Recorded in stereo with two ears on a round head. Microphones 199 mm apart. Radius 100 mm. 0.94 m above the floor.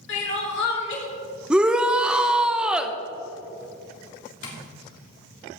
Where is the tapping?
70° left (ahead or behind), 2.5 m.